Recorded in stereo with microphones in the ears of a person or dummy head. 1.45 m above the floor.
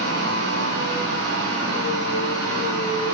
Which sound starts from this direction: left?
A machine running, at 0.0 s.